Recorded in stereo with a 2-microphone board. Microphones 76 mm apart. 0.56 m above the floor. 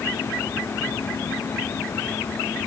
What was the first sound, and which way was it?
Only background noise.